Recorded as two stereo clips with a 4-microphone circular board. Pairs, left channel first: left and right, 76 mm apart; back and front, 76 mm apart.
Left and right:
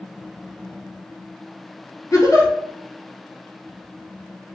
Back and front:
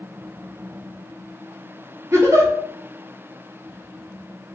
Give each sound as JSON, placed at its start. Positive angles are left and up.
{"t": 2.1, "sound": "a giggle", "azimuth_deg": 50, "distance_m": 0.7}